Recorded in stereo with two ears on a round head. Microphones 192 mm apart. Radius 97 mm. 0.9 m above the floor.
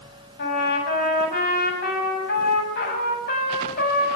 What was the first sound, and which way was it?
A trumpet, 40° left (ahead or behind).